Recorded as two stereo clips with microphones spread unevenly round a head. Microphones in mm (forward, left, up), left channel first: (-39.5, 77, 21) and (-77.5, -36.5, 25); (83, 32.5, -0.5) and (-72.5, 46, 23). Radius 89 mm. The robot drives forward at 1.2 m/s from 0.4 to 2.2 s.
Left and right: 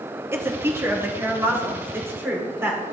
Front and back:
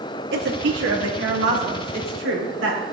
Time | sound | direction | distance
0.3 | a woman speaking | straight behind | 1.6 m